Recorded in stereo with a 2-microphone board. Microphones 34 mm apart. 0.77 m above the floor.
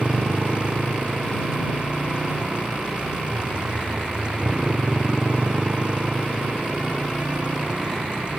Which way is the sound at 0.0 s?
35° right (ahead or behind).